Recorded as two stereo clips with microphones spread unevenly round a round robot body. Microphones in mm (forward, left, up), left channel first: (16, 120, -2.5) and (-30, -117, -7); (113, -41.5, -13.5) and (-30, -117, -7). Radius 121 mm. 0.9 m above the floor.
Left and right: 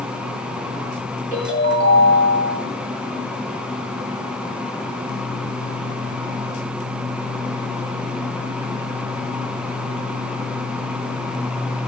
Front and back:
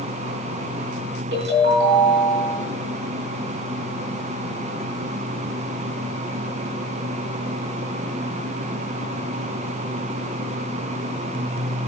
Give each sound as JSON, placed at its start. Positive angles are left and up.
{"t": 1.3, "sound": "a ringtone", "azimuth_deg": -160, "distance_m": 4.0}